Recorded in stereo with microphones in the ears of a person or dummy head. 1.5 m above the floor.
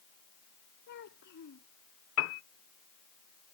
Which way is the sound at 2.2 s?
80° left.